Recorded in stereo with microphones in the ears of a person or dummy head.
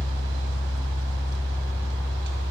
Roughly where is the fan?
Right.